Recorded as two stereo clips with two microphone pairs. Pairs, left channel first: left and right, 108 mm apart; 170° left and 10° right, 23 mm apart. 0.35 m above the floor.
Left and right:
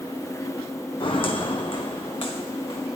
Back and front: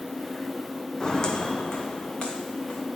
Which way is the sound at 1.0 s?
110° left.